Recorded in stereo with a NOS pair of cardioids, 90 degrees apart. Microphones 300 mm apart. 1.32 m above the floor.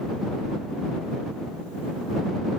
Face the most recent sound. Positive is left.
No sound to turn to.